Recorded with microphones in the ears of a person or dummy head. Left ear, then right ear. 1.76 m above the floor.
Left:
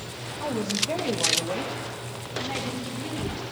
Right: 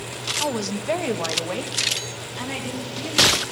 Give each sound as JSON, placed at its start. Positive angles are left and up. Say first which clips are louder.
{"t": 0.4, "sound": "a woman speaking", "louder": "left 3 dB", "side_deg": -75, "distance_m": 2.0}